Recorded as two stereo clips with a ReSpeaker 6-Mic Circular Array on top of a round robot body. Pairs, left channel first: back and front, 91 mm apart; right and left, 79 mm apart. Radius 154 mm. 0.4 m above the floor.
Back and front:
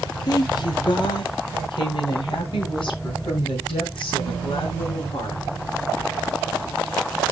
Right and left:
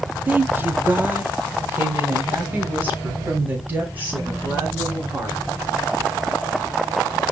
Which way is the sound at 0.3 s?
155° left.